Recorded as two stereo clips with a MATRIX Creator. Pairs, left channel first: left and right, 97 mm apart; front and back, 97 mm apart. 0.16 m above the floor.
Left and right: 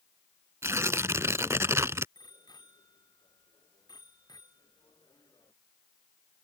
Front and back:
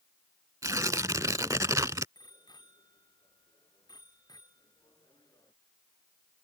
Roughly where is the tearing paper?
Behind right.